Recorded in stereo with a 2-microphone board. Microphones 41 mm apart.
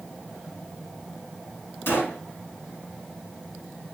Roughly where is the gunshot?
Left.